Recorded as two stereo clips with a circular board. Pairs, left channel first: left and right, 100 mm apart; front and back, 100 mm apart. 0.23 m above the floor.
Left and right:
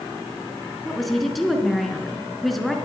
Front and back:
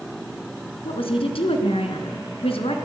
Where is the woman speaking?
Straight ahead, 3 m.